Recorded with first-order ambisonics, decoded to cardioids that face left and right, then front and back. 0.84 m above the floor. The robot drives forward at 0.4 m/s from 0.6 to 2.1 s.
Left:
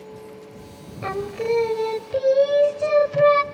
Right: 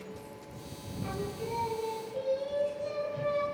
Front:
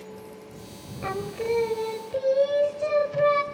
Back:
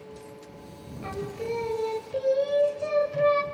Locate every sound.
1.0 s singing: 65° left, 1.4 m; by 3.4 s 80° left, 1.3 m